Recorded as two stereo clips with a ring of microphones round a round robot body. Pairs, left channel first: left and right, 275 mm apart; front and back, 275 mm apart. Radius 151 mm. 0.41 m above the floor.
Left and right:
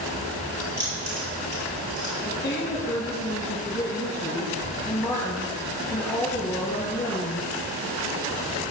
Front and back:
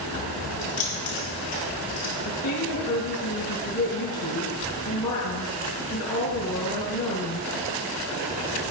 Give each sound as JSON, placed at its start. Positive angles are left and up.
{"t": 0.6, "sound": "keys jangling", "azimuth_deg": -25, "distance_m": 6.0}
{"t": 2.2, "sound": "a woman speaking", "azimuth_deg": 20, "distance_m": 2.5}